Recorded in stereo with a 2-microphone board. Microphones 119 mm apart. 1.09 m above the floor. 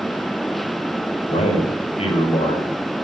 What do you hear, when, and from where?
1.3 s a man speaking: 60° left (ahead or behind), 5 m